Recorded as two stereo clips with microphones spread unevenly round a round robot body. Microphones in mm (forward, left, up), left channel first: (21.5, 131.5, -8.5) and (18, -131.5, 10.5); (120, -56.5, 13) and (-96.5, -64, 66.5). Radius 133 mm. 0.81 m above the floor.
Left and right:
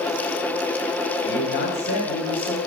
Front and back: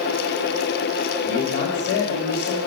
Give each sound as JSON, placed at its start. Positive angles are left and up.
{"t": 1.2, "sound": "a man speaking", "azimuth_deg": 40, "distance_m": 3.0}